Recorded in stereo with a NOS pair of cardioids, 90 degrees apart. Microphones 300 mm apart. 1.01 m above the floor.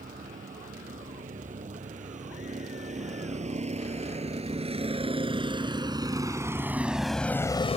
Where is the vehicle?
25° right; by 7.8 s 25° left.